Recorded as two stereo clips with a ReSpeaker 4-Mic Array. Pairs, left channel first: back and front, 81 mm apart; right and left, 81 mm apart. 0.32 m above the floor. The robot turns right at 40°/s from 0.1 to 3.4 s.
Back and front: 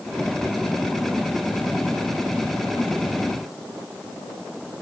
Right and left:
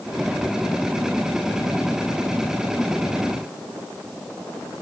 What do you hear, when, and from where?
Only background noise.